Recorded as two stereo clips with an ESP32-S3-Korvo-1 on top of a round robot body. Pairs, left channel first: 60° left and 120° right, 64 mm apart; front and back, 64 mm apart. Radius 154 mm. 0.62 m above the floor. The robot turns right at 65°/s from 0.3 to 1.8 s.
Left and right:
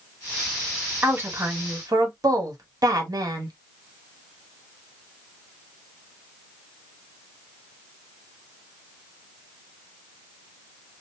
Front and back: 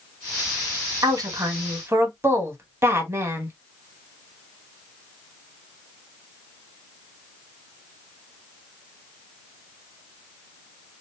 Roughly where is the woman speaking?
Behind.